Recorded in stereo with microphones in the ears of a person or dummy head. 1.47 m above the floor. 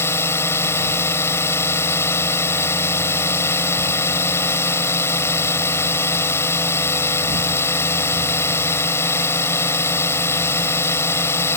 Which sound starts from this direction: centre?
A drone, at 0.0 s.